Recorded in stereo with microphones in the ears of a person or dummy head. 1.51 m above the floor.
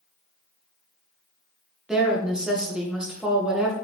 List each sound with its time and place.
1.9 s a woman speaking: 5° right (ahead or behind), 1.4 m